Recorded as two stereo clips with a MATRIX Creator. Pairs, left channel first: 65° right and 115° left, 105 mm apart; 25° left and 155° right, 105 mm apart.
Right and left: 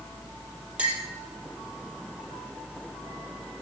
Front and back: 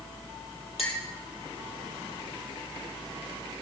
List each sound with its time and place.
0.8 s a clink: 35° left, 3.5 m